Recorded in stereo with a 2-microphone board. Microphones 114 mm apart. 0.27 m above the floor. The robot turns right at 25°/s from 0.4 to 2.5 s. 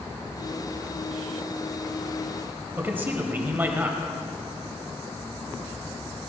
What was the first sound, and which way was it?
A man speaking, 20° right (ahead or behind).